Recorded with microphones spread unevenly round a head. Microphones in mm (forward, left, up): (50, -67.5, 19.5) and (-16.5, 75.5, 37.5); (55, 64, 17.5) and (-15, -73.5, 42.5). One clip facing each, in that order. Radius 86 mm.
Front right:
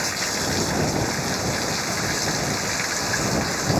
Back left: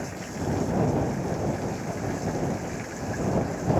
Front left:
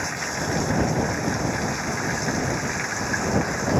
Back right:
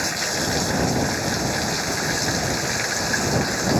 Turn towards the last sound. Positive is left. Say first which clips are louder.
# front right 3 dB, back right 3 dB
turn(degrees=-65)